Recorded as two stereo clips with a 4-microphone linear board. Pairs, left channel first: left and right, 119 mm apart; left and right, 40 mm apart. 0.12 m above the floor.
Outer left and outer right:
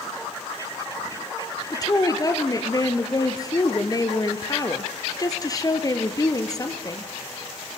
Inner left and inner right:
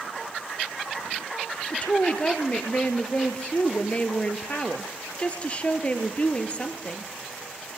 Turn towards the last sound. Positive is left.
turn(degrees=30)  # may be behind; listen again after turning